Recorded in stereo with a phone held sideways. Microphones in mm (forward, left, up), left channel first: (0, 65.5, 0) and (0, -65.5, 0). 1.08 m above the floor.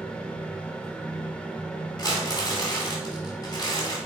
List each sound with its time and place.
0.0 s a fan: 10° left (ahead or behind), 0.9 m
2.0 s crumpling: 35° left (ahead or behind), 3.5 m